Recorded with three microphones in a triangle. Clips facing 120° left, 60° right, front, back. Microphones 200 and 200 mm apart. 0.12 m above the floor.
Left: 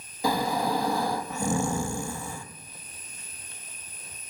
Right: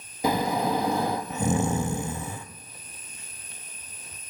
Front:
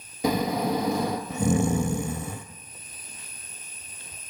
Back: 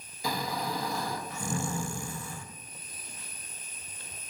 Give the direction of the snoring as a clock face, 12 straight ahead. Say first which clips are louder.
Right 2 dB, front 10 dB; 12 o'clock.